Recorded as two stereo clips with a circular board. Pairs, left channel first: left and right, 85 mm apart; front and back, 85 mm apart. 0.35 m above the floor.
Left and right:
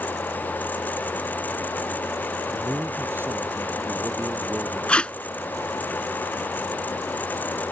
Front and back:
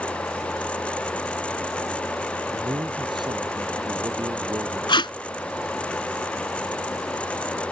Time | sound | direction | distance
2.5 | a man speaking | 155° right | ?
4.9 | tape being pulled | 15° left | ?